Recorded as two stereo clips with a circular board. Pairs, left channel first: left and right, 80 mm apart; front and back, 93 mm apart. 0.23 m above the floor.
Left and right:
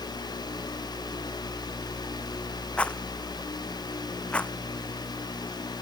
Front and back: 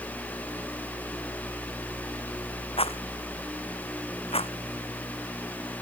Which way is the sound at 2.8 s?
15° left.